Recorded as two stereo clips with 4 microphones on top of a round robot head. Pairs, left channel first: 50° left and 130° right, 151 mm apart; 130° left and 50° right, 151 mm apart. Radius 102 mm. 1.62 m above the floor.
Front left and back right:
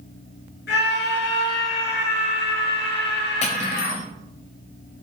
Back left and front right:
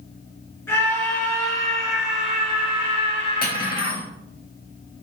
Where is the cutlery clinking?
95° left, 1.9 m.